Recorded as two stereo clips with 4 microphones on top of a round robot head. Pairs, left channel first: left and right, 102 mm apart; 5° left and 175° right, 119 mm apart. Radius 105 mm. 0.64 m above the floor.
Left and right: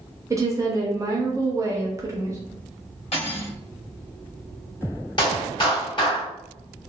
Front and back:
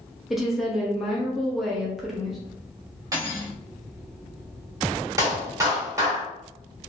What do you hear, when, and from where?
0.3 s a woman speaking: 90° right, 0.7 m
3.1 s cutlery clinking: 125° left, 1.4 m
5.2 s a clap: 125° left, 1.5 m